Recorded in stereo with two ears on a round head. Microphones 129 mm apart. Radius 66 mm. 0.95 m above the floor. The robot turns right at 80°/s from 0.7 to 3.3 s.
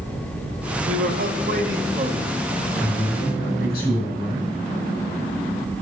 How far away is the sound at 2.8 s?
About 5.5 m.